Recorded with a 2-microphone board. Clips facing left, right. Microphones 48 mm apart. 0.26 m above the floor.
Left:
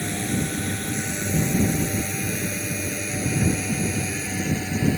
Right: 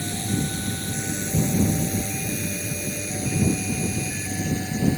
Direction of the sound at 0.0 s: 35° left (ahead or behind).